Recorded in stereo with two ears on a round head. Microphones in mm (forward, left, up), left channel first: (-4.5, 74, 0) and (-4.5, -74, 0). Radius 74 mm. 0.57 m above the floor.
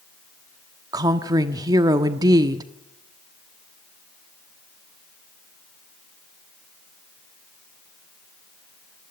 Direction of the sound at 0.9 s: 25° right (ahead or behind).